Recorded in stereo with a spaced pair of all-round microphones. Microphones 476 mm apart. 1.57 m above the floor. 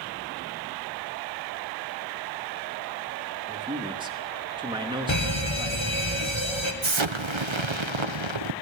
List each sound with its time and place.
3.5 s a man speaking: 10° right (ahead or behind), 3 m
5.1 s a fire alarm: 70° left (ahead or behind), 3 m
6.8 s an explosion: 70° right (ahead or behind), 1.2 m